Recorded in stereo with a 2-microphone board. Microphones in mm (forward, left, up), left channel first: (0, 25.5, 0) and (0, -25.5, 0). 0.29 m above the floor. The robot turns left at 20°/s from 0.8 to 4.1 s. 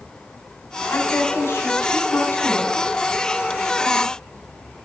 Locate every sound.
0.9 s a woman speaking: 100° left, 1.9 m; by 2.8 s 65° left, 1.9 m